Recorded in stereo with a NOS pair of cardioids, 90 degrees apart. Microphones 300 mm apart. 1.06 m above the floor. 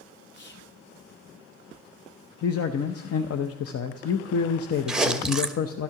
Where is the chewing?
Straight ahead, 0.9 m.